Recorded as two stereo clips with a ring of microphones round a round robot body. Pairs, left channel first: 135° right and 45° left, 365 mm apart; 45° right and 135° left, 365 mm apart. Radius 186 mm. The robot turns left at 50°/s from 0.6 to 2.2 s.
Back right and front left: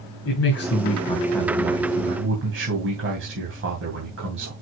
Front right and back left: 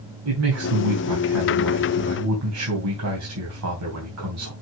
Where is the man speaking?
Straight behind, 3 m; by 4.5 s 100° left, 3 m.